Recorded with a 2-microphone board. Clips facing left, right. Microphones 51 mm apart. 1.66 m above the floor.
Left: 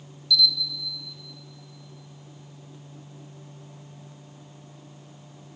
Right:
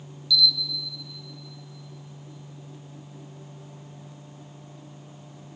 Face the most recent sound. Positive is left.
turn(degrees=55)  # may be behind; listen again after turning